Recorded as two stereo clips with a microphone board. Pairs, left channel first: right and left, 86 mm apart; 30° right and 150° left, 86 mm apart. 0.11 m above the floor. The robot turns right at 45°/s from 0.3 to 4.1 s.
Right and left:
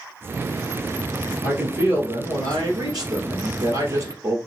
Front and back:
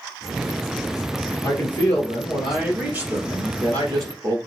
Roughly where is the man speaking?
Ahead.